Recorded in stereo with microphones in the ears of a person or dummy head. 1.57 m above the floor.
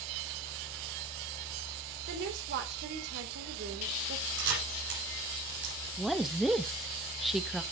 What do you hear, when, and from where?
2.1 s a woman speaking: 65° right (ahead or behind), 2 m
4.4 s a camera shutter: 65° right (ahead or behind), 7 m
6.0 s a woman speaking: 5° right (ahead or behind), 0.7 m